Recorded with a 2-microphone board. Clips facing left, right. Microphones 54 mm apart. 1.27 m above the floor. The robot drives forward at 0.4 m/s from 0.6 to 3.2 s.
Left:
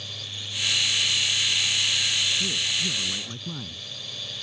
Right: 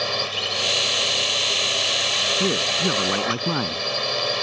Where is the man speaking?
55° right (ahead or behind).